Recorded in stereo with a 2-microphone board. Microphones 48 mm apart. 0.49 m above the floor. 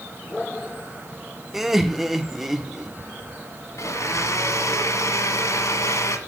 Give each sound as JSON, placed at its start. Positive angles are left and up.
{"t": 1.5, "sound": "laughter", "side_deg": -5, "distance_m": 1.1}
{"t": 3.8, "sound": "a blender", "side_deg": 85, "distance_m": 1.7}